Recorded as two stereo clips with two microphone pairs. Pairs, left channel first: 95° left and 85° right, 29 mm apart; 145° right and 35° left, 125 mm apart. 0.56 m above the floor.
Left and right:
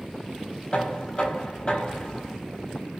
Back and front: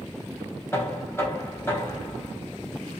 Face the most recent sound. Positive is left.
turn(degrees=145)